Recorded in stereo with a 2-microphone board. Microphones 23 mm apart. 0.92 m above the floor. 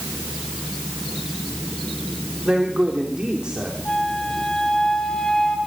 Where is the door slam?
No door slam in this recording.